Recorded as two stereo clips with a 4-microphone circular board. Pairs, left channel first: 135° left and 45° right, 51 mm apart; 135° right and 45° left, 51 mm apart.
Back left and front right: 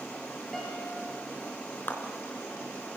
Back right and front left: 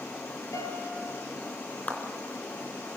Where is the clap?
170° left, 3 m.